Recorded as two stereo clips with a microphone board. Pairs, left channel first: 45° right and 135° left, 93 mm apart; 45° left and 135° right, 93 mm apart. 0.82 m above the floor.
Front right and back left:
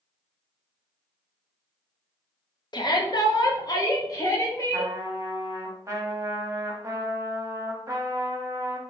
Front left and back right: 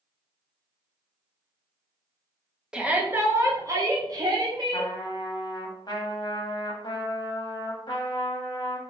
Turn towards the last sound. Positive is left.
turn(degrees=80)